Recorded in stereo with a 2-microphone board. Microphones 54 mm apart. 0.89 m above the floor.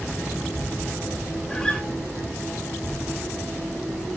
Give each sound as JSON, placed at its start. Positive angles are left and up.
{"t": 1.5, "sound": "a guitar", "side_deg": 15, "distance_m": 2.5}